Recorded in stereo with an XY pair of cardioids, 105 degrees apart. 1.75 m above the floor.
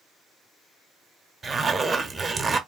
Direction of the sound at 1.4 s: 30° right.